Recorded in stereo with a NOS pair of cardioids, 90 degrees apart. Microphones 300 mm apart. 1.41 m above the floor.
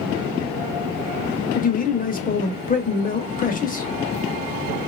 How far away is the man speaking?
About 0.8 m.